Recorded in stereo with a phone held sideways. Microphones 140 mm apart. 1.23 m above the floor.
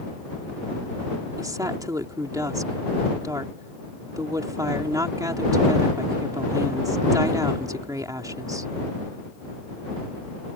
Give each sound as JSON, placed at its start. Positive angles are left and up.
{"t": 1.4, "sound": "a woman speaking", "side_deg": -25}